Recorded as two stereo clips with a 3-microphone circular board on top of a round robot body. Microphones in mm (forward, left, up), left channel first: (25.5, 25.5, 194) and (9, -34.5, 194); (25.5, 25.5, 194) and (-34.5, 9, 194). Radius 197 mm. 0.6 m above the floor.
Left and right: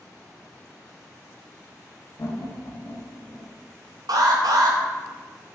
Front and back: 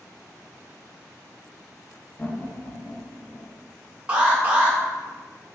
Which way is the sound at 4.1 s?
95° right.